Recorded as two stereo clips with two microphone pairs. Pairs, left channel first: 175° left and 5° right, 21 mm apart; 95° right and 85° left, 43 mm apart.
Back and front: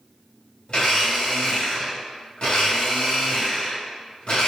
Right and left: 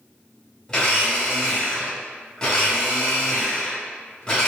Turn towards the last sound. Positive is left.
turn(degrees=-160)